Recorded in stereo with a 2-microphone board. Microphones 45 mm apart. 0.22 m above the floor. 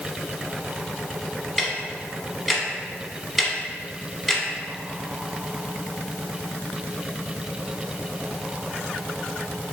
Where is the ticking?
Centre (ahead or behind), 0.8 m.